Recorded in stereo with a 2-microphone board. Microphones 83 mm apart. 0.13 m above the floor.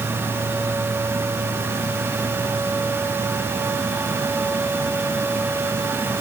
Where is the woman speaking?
I don't hear a woman speaking.